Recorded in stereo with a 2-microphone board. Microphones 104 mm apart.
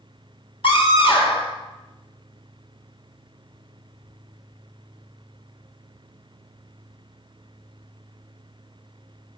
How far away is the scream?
About 2.5 m.